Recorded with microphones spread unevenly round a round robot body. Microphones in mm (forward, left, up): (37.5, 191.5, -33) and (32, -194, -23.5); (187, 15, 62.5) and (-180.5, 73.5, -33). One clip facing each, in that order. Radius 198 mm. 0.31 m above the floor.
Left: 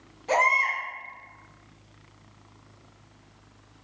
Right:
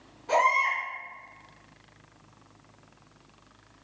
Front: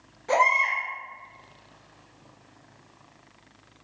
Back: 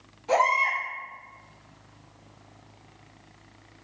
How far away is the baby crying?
About 1.8 m.